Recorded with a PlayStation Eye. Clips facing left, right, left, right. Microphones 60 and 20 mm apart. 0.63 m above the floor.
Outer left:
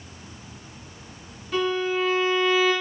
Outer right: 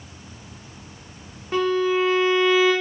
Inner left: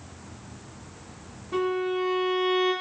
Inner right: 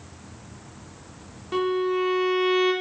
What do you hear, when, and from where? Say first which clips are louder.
1.5 s a violin: outer right 4 dB, inner right 3 dB; 45° right (ahead or behind), 0.6 m